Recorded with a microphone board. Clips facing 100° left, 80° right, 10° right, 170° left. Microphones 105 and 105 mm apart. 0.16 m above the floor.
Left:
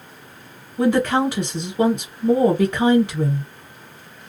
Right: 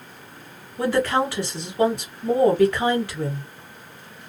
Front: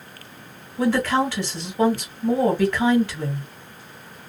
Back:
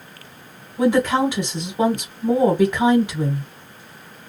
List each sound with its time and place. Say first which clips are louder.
0.8 s a woman speaking: left 3 dB, back 3 dB; 125° left, 1.2 m